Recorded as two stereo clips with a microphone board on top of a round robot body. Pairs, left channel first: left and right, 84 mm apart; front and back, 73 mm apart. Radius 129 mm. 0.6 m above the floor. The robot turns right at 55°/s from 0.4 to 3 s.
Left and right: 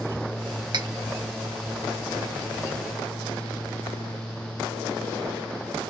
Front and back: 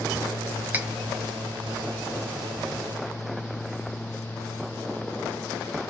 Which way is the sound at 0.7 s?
115° right.